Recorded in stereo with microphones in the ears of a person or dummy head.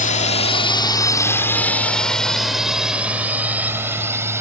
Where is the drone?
35° left (ahead or behind); by 4.4 s 15° right (ahead or behind).